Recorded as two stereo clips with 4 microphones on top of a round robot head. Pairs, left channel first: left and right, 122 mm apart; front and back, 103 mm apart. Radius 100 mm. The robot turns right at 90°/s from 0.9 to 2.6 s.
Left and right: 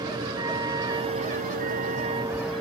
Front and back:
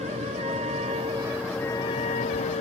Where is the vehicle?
145° right; by 2.6 s 5° left.